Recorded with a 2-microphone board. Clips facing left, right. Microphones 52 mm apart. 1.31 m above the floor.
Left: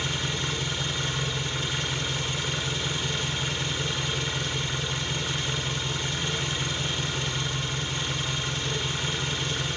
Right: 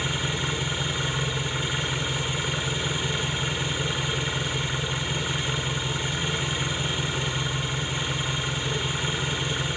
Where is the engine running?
10° right (ahead or behind), 0.8 m.